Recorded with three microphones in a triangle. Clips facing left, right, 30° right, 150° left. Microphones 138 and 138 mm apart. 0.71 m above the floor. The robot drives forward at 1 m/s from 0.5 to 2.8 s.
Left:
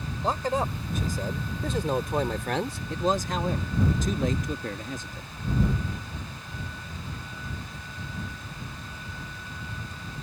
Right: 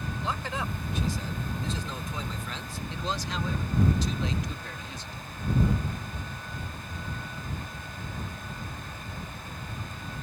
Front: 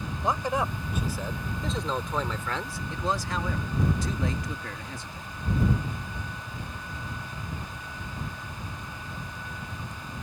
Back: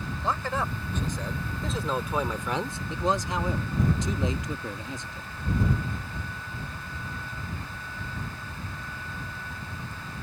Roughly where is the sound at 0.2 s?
Ahead left.